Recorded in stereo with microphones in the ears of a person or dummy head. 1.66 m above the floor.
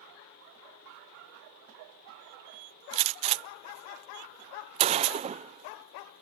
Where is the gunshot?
35° right (ahead or behind).